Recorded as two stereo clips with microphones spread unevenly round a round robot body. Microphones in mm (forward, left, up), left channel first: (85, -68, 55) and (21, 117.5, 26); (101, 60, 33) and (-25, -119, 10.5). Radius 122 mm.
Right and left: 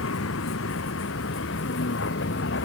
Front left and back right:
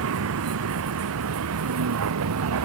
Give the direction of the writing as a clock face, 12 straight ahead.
I don't hear writing.